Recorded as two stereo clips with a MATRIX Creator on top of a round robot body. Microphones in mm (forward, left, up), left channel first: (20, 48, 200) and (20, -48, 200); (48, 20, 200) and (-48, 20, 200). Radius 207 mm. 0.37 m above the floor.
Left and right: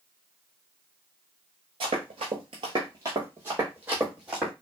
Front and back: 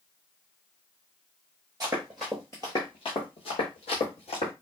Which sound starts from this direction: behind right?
Running footsteps, at 1.8 s.